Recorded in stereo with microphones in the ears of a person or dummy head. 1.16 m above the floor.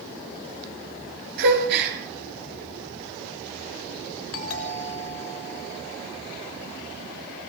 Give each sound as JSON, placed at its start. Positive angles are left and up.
{"t": 1.4, "sound": "a gasp", "side_deg": -60, "distance_m": 6.5}
{"t": 4.3, "sound": "a doorbell", "side_deg": 80, "distance_m": 5.5}